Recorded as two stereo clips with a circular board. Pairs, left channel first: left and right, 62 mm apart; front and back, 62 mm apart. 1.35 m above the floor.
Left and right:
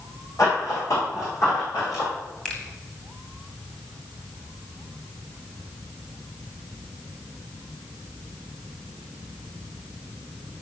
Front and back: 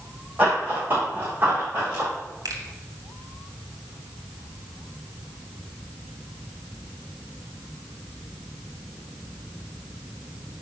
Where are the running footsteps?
120° left, 4.5 m.